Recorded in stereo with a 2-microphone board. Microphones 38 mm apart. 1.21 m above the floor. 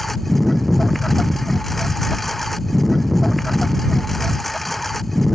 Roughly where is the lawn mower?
Centre.